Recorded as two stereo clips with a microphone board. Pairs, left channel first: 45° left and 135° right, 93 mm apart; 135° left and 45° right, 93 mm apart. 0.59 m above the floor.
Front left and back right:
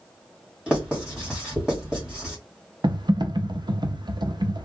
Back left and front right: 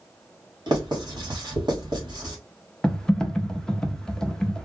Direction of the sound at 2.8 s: 145° right.